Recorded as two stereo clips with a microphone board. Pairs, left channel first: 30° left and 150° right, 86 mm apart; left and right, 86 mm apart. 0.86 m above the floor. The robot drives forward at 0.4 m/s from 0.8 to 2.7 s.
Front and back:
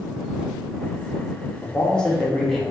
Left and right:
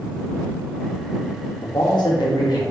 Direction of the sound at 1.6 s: 100° left.